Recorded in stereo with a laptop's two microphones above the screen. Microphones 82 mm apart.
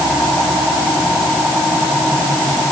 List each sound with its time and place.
Only background noise.